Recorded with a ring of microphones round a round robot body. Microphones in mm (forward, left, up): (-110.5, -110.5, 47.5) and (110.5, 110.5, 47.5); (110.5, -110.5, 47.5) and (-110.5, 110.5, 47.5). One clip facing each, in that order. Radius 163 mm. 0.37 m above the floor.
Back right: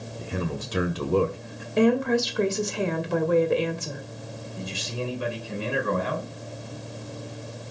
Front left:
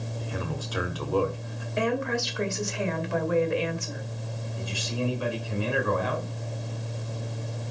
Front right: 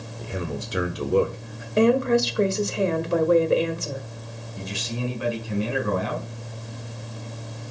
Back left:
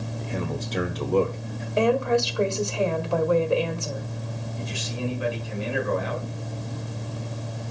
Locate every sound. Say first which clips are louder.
0.2 s a man speaking: back right 5 dB, front right 1 dB; 110° right, 1.3 m
1.8 s a woman speaking: back right 7 dB, front right 3 dB; 105° right, 1.6 m
4.6 s a man speaking: front left 2 dB, front right 2 dB; 70° right, 4 m